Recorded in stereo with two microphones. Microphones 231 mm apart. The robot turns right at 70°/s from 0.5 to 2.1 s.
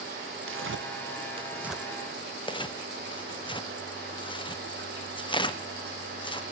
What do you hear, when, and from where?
0.5 s tearing paper: 70° right (ahead or behind), 0.5 m; by 6.4 s 20° left (ahead or behind), 0.5 m